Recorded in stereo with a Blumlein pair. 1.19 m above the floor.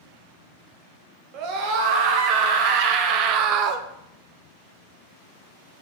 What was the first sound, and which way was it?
A scream, 40° right.